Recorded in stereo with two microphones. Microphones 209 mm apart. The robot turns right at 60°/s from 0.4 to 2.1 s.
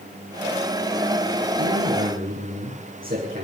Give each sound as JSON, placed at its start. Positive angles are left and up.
{"t": 1.6, "sound": "a man speaking", "azimuth_deg": -80, "distance_m": 6.0}